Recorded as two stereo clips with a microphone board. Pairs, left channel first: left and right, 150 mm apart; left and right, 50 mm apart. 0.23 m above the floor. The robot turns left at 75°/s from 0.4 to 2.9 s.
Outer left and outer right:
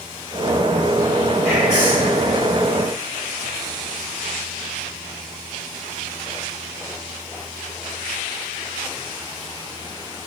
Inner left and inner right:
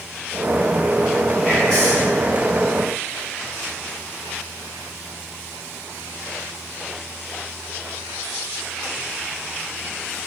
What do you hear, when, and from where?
1.4 s whispering: 175° left, 1.6 m; by 2.1 s 125° left, 1.6 m